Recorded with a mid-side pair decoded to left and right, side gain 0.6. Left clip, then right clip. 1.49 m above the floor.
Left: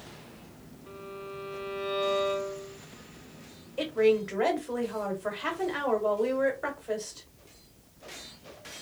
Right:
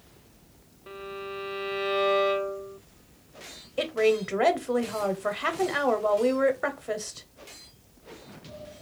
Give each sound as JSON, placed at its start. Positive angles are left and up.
{"t": 0.9, "sound": "a violin", "azimuth_deg": -35, "distance_m": 0.5}
{"t": 3.8, "sound": "a woman speaking", "azimuth_deg": -30, "distance_m": 1.0}